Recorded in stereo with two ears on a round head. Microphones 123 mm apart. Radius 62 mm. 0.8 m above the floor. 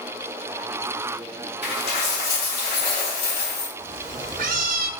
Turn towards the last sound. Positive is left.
turn(degrees=-65)  # may be behind; listen again after turning